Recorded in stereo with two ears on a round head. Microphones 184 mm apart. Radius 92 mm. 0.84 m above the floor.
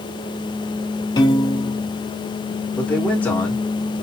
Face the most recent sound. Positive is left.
turn(degrees=5)  # may be behind; listen again after turning